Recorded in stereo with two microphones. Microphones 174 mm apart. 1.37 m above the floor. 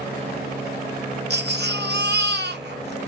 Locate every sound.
1.3 s a baby crying: 75° right (ahead or behind), 0.8 m